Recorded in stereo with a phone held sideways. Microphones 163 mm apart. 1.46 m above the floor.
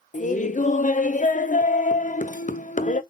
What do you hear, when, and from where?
0.1 s laughter: 50° left (ahead or behind), 0.6 m